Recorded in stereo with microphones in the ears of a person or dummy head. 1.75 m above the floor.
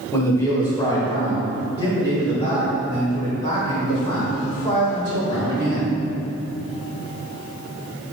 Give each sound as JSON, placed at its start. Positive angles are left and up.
{"t": 0.1, "sound": "a man speaking", "side_deg": 15, "distance_m": 1.7}